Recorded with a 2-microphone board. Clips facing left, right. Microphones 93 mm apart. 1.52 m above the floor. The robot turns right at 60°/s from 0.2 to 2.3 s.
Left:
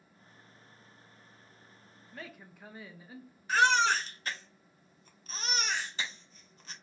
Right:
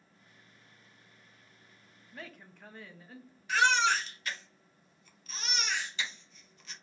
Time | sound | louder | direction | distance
2.1 | a woman speaking | left 1 dB | 5° right (ahead or behind) | 0.5 m
3.5 | a baby crying | left 1 dB | 35° left (ahead or behind) | 0.6 m